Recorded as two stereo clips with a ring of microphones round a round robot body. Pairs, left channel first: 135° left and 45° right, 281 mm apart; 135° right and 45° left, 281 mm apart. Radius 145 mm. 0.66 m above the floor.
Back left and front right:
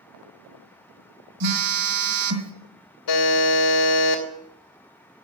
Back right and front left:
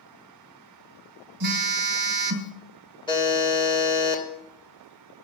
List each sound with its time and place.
1.4 s a phone buzzing: 10° right, 1.5 m
3.1 s a buzzer: 150° left, 2.5 m